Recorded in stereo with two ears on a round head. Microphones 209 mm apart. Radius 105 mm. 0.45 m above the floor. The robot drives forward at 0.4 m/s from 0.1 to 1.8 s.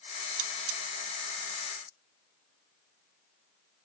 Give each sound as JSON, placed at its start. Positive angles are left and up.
{"t": 0.4, "sound": "cutlery clinking", "side_deg": -70, "distance_m": 1.3}